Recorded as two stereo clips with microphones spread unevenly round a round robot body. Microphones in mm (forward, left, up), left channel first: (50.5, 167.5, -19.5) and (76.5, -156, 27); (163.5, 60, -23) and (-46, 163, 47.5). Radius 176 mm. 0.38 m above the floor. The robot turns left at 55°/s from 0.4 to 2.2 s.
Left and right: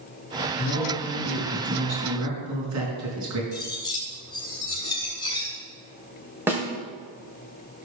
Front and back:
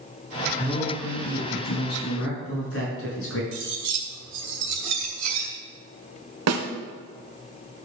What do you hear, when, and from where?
0.6 s a man speaking: 45° left, 5 m; by 3.4 s 45° right, 5 m
3.5 s cutlery clinking: 170° left, 2 m
6.5 s a snare drum: 175° right, 1.0 m